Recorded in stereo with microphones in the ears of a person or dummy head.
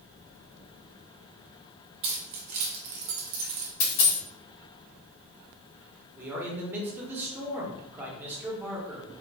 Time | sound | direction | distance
2.0 | keys jangling | 35° right (ahead or behind) | 0.8 m
3.8 | a dropped coin | 50° left (ahead or behind) | 1.5 m
6.2 | a man speaking | 10° right (ahead or behind) | 0.9 m